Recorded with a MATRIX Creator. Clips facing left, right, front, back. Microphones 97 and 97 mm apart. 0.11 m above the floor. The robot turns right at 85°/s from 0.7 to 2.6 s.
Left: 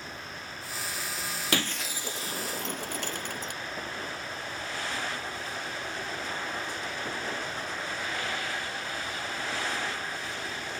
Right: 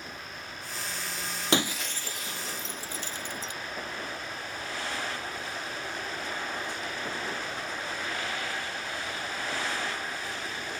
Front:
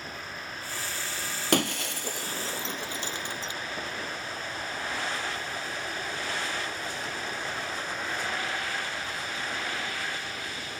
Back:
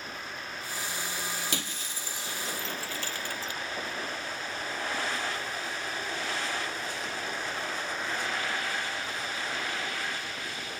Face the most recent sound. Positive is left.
turn(degrees=70)